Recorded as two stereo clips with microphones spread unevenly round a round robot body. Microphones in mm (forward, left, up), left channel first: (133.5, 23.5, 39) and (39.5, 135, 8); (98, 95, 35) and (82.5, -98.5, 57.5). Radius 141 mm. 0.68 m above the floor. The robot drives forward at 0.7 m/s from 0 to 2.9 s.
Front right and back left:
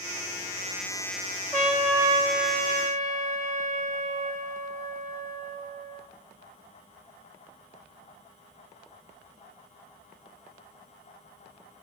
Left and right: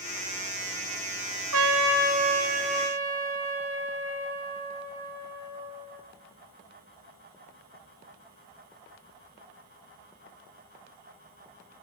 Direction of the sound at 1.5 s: 130° right.